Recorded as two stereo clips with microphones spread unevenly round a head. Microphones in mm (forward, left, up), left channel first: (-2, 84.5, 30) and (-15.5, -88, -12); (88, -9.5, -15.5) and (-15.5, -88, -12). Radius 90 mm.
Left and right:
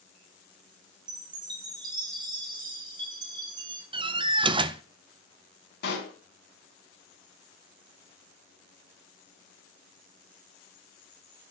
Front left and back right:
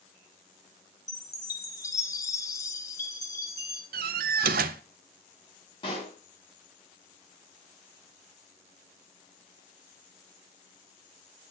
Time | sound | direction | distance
1.1 | a chime | 25° right | 2.5 m
3.9 | a door slam | 160° right | 0.7 m
5.8 | a pop | 100° left | 3.5 m